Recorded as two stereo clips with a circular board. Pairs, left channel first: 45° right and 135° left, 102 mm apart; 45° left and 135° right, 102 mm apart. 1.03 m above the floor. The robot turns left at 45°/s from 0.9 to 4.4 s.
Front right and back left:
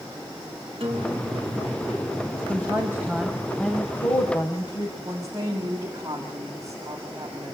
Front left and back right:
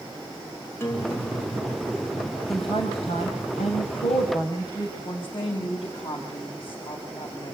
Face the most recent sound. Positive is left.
turn(degrees=70)